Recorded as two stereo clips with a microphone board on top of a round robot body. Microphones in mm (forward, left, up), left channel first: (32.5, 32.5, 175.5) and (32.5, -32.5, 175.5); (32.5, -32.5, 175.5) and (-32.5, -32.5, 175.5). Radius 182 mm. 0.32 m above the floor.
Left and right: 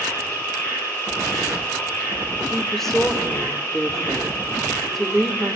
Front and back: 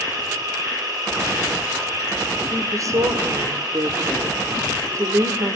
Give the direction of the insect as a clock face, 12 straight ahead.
7 o'clock.